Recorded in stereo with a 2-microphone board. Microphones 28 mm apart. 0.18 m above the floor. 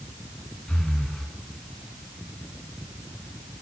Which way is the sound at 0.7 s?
35° left (ahead or behind).